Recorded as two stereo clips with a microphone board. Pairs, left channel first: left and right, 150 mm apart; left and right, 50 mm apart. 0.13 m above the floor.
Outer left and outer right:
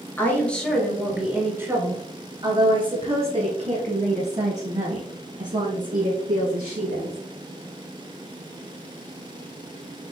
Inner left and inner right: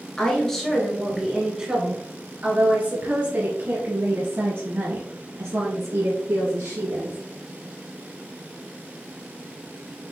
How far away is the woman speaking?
About 1.5 m.